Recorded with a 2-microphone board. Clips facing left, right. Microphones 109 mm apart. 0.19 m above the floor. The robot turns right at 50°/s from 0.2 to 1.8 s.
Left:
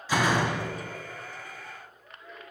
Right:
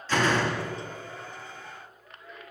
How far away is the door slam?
About 0.7 m.